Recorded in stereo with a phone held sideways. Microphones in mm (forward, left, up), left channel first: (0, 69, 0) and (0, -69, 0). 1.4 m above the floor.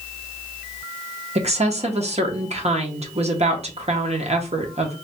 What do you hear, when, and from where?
1.4 s a woman speaking: 55° right (ahead or behind), 0.7 m